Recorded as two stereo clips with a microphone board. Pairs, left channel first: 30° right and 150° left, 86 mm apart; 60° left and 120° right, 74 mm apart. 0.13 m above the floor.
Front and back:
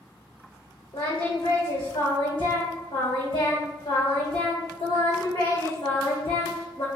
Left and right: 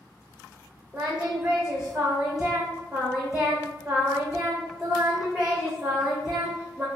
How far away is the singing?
About 1.5 m.